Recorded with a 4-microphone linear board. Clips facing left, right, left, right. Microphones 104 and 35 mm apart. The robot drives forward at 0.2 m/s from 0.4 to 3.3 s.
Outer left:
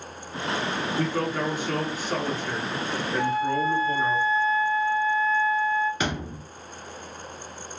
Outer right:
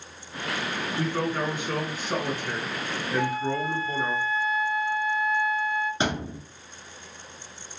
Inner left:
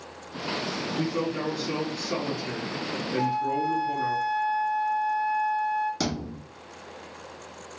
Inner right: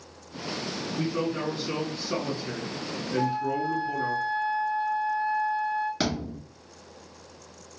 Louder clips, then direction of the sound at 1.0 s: Even, inner right 1 dB; 20° right (ahead or behind).